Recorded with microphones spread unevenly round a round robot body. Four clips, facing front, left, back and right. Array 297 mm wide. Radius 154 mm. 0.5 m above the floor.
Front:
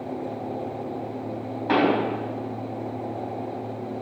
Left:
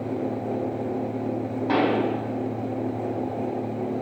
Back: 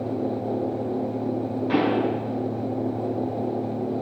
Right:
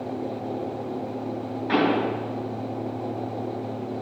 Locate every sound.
1.7 s a pop: 35° left, 4 m